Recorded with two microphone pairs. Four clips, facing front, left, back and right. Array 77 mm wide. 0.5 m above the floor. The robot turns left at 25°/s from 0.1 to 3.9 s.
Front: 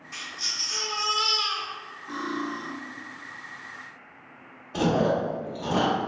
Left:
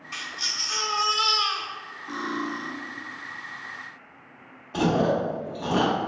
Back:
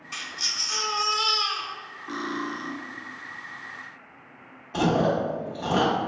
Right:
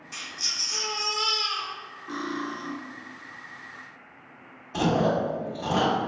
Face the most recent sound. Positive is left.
turn(degrees=140)